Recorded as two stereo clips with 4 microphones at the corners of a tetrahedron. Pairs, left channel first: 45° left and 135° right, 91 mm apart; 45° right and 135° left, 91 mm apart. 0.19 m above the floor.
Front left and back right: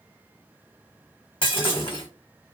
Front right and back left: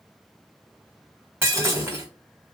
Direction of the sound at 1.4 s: 70° left.